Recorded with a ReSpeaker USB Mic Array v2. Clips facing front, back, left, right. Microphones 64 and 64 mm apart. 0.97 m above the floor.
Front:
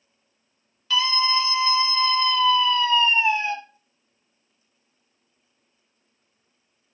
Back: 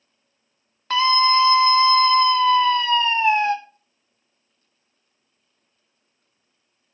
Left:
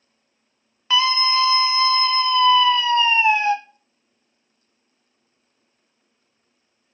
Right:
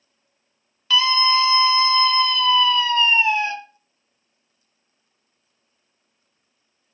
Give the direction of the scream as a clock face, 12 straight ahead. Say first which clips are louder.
Back 6 dB, right 1 dB; 7 o'clock.